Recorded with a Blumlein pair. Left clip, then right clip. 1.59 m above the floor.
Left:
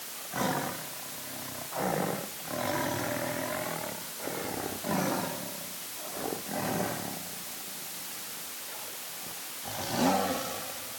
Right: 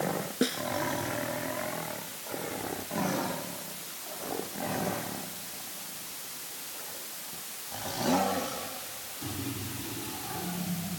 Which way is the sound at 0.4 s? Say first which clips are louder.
Left 1 dB; 30° right.